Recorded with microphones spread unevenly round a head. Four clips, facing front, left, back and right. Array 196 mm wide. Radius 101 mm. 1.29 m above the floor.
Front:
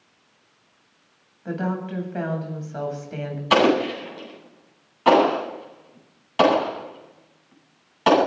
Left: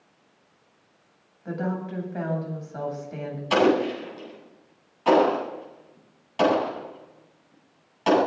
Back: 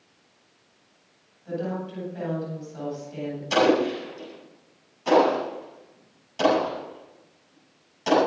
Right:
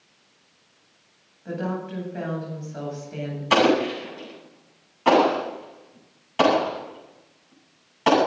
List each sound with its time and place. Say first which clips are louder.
1.4 s a woman speaking: even, front 3 dB; 5° right, 9 m
3.5 s an explosion: right 1 dB, front 2 dB; 25° right, 10 m